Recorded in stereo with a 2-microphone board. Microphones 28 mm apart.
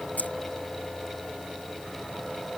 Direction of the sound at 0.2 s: 75° left (ahead or behind).